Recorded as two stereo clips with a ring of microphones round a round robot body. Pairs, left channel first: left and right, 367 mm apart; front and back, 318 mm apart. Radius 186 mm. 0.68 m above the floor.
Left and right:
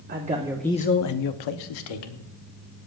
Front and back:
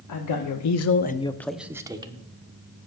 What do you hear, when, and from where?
0.1 s a man speaking: 30° right, 1.1 m; by 2.3 s 105° left, 1.7 m